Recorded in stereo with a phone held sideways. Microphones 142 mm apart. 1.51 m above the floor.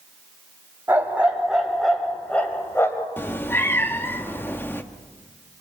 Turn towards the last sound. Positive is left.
turn(degrees=15)  # may be behind; listen again after turning